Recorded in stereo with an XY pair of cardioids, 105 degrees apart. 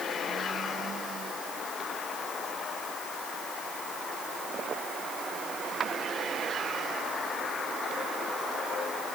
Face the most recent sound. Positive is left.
No sound to turn to.